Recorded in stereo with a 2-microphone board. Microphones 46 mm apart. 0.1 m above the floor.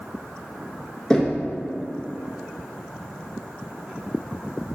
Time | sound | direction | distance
1.1 | knocking | 15° left (ahead or behind) | 1.5 m